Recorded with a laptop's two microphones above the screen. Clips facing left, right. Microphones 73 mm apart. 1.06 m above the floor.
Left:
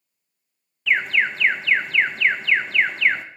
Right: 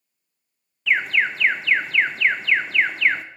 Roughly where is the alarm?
Centre.